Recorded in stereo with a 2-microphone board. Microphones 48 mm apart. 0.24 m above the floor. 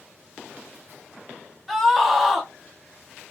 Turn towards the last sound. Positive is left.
turn(degrees=5)  # may be behind; listen again after turning